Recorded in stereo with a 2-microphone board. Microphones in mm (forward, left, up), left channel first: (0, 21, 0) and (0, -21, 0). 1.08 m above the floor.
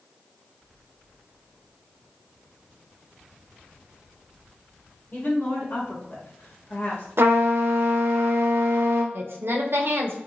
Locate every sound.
5.1 s a woman speaking: 55° left (ahead or behind), 1.7 m; by 7.1 s 45° left (ahead or behind), 1.5 m
7.2 s a trumpet: 70° right (ahead or behind), 0.6 m
9.1 s a woman speaking: 65° right (ahead or behind), 0.7 m